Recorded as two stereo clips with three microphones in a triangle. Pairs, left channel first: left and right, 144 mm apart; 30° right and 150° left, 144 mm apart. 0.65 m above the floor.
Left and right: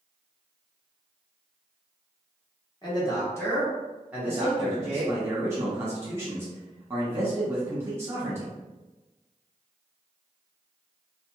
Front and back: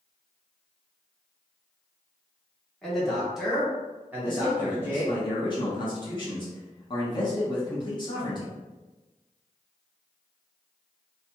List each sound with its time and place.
2.8 s a man speaking: 55° left, 1.1 m; by 5.1 s 140° right, 1.4 m
4.3 s a man speaking: 35° right, 1.1 m